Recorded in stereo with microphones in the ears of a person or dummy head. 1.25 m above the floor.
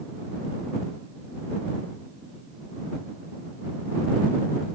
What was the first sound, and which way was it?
Only background noise.